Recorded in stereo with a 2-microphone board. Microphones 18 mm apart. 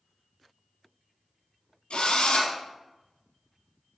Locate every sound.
1.9 s a drill: 80° left, 2.5 m